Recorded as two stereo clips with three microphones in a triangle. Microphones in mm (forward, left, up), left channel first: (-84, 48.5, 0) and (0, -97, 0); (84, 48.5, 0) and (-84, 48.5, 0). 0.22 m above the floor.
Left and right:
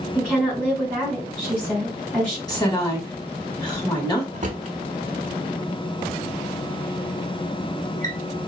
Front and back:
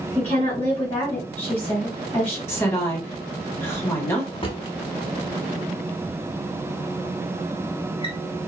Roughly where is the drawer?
Ahead right.